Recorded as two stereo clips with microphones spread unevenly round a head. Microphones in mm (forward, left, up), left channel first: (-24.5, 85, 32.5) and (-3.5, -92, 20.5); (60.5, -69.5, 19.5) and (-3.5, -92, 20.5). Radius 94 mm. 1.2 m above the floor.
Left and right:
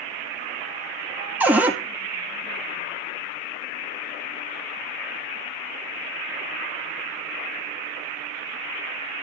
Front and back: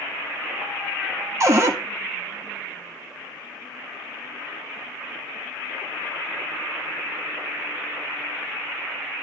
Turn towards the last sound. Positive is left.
turn(degrees=-165)